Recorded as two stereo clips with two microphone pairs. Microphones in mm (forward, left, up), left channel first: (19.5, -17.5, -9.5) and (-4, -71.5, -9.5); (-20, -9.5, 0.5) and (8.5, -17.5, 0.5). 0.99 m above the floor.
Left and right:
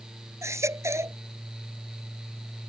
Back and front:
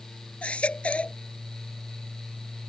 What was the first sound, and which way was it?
A baby crying, 150° right.